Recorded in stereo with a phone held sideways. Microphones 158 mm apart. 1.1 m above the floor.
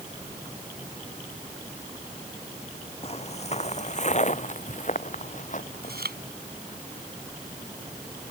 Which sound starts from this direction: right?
Chewing, at 5.8 s.